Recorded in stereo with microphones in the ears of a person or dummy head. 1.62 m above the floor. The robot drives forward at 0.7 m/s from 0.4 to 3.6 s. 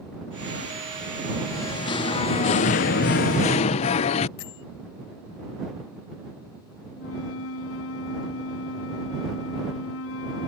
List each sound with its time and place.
1.5 s singing: 20° left (ahead or behind); by 4.3 s 35° left (ahead or behind)
4.4 s a bell: 70° left (ahead or behind)
6.9 s a flute: 80° left